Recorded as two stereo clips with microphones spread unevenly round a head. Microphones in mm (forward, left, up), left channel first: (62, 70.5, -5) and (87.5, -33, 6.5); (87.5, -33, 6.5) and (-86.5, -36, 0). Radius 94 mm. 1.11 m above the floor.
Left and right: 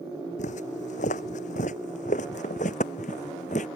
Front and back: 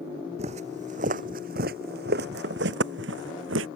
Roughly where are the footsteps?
Behind left.